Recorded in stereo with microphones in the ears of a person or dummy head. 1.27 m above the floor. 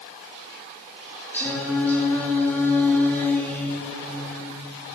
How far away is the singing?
About 2.5 m.